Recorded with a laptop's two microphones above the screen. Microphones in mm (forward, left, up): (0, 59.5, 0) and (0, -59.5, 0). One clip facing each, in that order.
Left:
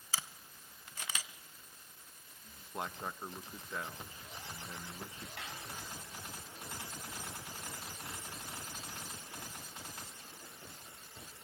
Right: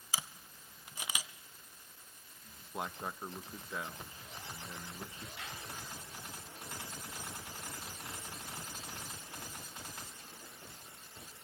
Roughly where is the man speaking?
Centre.